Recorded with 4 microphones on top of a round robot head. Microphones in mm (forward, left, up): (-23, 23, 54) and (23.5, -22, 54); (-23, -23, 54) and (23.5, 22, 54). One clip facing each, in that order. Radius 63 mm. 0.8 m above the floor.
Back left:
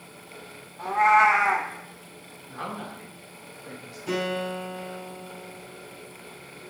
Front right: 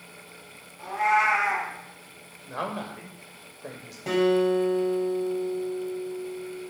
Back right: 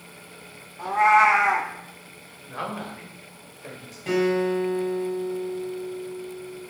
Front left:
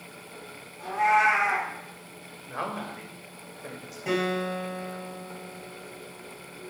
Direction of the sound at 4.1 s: 30° right.